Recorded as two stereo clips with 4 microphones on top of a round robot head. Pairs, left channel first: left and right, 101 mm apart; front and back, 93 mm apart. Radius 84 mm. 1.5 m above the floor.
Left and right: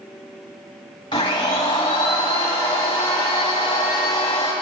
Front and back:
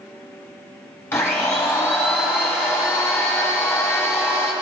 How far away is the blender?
About 1.5 m.